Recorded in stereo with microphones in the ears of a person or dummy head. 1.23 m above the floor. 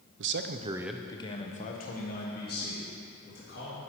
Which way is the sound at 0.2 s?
60° right (ahead or behind).